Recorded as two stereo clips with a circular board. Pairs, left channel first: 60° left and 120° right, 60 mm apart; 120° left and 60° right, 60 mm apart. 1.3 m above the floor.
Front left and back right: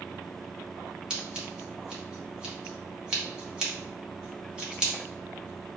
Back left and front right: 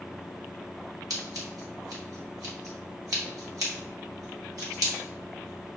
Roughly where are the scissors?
Ahead right.